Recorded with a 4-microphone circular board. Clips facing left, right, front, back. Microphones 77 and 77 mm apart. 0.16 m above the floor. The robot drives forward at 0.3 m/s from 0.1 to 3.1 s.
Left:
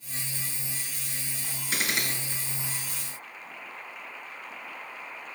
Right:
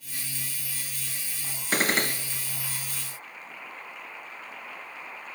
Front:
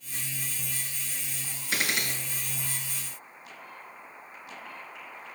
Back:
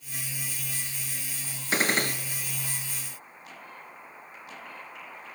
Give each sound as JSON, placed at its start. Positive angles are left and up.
{"t": 1.7, "sound": "a gunshot", "azimuth_deg": -130, "distance_m": 0.5}